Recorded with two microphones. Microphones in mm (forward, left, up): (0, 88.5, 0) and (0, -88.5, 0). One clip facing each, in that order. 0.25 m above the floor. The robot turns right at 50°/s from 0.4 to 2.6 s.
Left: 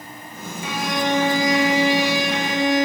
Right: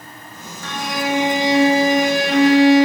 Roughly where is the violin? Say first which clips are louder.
Even; behind.